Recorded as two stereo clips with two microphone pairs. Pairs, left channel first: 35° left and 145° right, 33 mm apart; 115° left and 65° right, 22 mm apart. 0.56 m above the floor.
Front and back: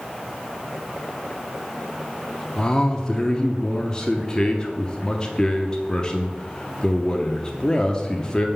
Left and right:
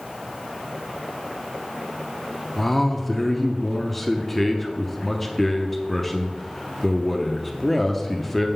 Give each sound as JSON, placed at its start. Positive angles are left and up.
{"t": 2.6, "sound": "a man speaking", "azimuth_deg": 30, "distance_m": 0.7}